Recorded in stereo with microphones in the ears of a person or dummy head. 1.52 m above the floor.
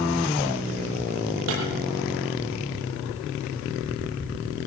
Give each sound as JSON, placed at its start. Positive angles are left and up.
{"t": 1.5, "sound": "breaking glass", "side_deg": -70, "distance_m": 10.0}